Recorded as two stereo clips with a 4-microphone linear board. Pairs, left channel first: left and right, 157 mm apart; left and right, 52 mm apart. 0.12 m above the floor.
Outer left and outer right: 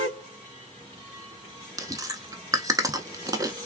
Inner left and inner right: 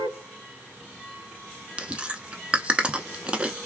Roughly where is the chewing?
Right.